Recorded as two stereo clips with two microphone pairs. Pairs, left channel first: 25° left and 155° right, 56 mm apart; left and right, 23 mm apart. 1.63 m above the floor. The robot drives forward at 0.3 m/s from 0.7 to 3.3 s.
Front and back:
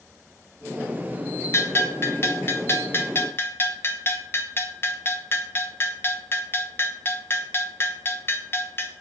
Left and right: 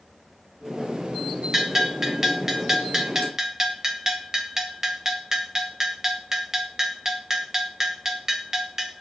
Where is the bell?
20° right, 2.5 m.